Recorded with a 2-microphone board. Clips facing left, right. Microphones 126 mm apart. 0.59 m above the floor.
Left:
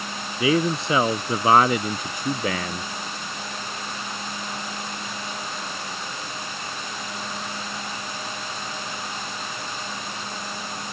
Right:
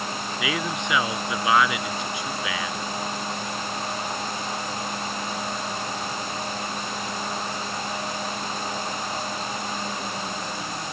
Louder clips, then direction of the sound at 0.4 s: Left 9 dB; 35° left (ahead or behind).